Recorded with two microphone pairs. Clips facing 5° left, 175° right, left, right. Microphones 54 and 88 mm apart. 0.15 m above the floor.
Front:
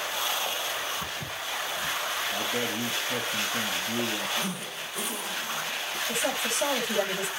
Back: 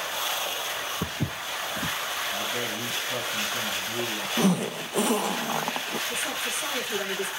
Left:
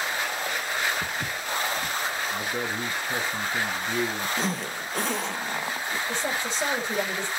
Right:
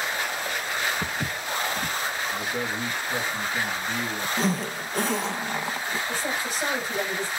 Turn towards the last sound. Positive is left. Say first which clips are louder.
# front 2 dB, even
turn(degrees=20)